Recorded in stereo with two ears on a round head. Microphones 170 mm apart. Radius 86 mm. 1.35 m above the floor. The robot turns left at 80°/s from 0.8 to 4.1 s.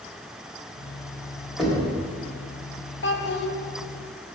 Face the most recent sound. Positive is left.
turn(degrees=10)